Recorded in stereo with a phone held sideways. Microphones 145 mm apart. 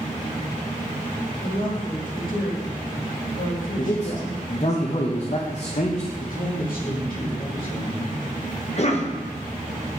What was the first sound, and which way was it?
A woman speaking, 60° left (ahead or behind).